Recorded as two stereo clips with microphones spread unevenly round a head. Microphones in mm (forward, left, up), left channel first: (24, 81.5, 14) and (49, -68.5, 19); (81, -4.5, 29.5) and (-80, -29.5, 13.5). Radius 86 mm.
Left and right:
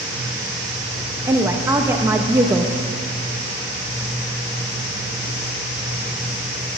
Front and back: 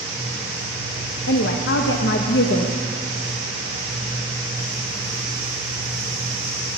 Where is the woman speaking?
10° right, 0.9 m.